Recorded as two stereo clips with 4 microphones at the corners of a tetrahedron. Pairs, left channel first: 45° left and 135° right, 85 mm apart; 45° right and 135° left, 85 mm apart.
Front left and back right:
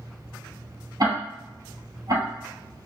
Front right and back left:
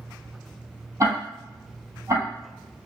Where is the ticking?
175° right, 1.9 m.